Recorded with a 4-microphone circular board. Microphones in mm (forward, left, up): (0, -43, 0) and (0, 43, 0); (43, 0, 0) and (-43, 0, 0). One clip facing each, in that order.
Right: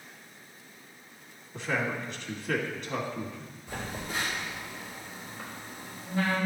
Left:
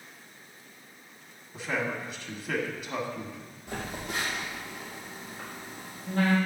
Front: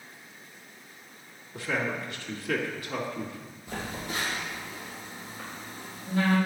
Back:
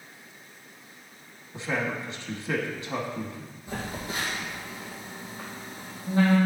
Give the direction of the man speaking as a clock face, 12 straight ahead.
7 o'clock.